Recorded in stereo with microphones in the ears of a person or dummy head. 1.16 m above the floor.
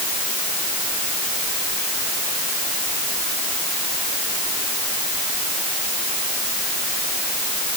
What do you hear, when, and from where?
Only background noise.